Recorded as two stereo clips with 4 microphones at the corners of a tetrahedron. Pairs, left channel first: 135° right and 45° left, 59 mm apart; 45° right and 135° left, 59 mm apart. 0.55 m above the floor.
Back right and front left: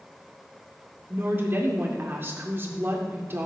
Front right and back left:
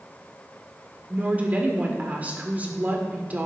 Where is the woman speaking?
85° left, 1.8 m.